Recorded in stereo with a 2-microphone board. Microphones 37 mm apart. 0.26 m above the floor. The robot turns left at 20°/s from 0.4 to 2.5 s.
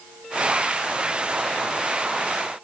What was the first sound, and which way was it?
Only background noise.